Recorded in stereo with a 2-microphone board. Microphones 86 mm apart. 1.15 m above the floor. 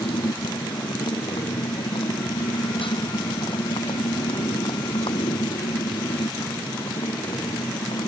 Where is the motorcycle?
75° left (ahead or behind); by 8.1 s 80° left.